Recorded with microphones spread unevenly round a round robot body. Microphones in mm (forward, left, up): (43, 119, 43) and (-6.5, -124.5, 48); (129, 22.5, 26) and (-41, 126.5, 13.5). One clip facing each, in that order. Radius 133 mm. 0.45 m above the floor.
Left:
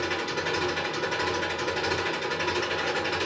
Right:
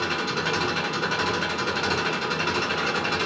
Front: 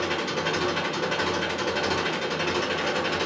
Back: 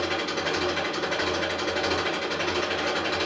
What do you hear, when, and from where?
0.0 s an engine running: 95° right, 3.5 m